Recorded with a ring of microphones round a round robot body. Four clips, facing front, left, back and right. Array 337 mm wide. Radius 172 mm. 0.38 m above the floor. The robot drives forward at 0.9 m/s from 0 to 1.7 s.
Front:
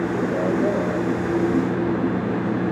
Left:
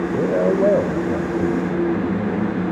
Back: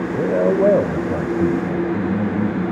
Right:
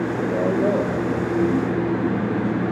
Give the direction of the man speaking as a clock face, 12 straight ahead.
7 o'clock.